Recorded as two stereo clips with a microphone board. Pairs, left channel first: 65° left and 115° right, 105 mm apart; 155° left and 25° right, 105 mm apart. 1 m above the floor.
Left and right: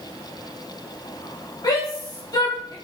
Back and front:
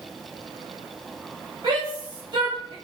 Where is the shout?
20° left, 2 m.